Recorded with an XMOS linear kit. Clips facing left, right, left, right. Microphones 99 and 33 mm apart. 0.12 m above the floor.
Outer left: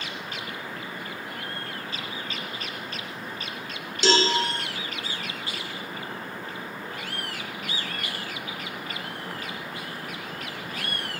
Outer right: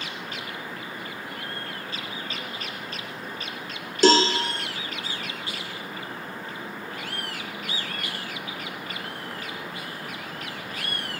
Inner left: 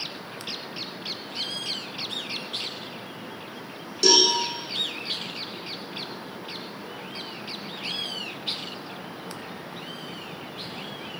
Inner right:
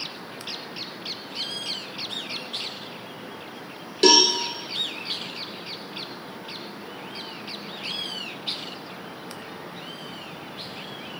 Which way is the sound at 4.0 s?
45° right (ahead or behind).